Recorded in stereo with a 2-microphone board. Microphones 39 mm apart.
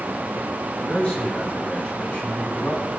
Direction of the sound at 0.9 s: 25° left (ahead or behind).